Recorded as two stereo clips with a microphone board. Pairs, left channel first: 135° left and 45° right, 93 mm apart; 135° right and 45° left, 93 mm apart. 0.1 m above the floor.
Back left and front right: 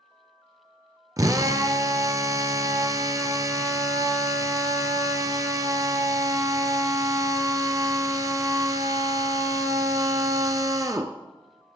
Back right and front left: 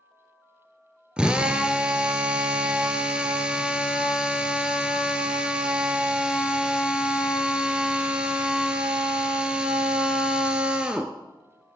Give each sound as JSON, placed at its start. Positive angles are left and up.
{"t": 1.2, "sound": "a drill", "azimuth_deg": -30, "distance_m": 0.6}